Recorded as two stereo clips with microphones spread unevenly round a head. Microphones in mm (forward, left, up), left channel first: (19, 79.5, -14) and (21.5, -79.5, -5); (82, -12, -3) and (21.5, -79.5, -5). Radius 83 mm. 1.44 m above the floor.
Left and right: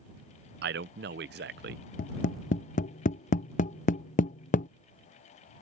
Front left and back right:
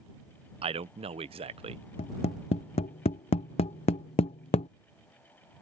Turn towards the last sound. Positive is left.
turn(degrees=50)